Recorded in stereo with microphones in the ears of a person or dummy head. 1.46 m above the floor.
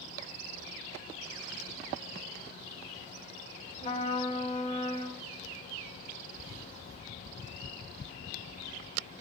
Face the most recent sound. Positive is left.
turn(degrees=40)  # may be behind; listen again after turning